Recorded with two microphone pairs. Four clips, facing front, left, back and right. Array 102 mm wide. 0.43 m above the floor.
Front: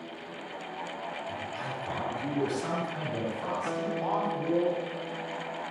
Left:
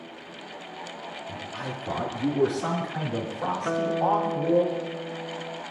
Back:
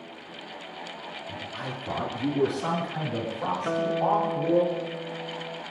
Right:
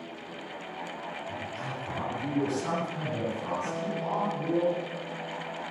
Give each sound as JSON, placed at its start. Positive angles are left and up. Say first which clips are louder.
{"t": 1.3, "sound": "a man speaking", "louder": "left 1 dB, even", "azimuth_deg": 115, "distance_m": 7.0}
{"t": 3.6, "sound": "a guitar", "louder": "left 8 dB, back 8 dB", "azimuth_deg": 130, "distance_m": 0.8}